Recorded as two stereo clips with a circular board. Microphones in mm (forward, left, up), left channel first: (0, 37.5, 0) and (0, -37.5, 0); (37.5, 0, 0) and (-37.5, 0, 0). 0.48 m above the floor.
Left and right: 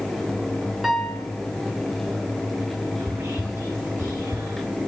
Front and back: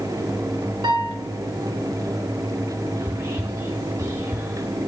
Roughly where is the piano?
Behind.